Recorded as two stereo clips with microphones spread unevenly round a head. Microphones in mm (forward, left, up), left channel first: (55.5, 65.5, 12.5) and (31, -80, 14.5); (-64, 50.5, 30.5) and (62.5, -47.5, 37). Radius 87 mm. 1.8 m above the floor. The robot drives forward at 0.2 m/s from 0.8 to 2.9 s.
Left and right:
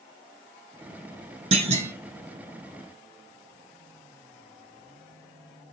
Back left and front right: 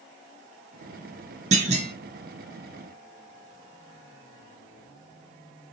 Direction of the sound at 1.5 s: 70° right.